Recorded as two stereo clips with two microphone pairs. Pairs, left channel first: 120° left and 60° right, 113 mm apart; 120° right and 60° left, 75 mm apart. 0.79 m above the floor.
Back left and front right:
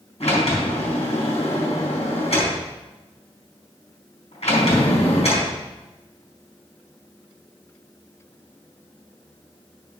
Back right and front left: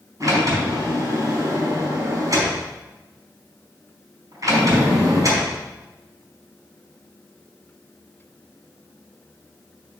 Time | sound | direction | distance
0.2 | a sliding door | 95° left | 4.5 m